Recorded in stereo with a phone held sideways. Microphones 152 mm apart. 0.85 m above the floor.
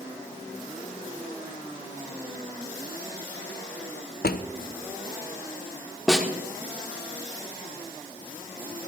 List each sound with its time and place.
4.2 s a drawer: 85° left, 0.7 m
6.1 s a snare drum: 5° right (ahead or behind), 1.2 m